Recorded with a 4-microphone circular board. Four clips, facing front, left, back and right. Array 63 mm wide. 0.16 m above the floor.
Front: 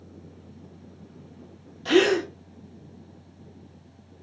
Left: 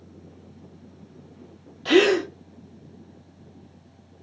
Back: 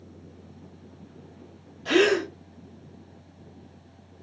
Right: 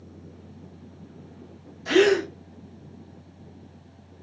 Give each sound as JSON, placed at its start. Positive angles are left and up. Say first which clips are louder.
{"t": 1.9, "sound": "a gasp", "louder": "left 1 dB, front 1 dB", "azimuth_deg": 80, "distance_m": 0.8}